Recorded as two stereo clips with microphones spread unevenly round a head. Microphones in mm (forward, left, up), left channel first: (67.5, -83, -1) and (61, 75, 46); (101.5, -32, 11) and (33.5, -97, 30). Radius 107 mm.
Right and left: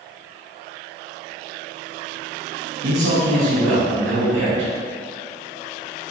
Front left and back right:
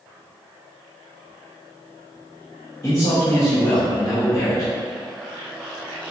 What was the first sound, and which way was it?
A man speaking, 105° left.